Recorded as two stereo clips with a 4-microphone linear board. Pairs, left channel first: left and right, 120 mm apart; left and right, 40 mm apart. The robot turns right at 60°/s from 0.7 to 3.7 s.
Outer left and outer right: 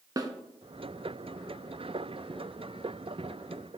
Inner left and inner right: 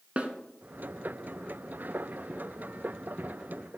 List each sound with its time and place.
0.2 s a snare drum: 30° right (ahead or behind), 0.6 m